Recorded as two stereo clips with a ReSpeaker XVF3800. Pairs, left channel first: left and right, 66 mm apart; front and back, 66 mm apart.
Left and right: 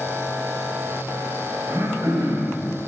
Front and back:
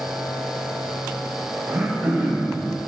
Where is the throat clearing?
115° right, 4.5 m.